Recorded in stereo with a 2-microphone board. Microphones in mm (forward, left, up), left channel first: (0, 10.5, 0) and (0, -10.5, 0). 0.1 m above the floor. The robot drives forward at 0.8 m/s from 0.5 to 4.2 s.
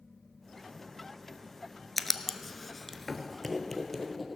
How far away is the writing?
About 0.7 m.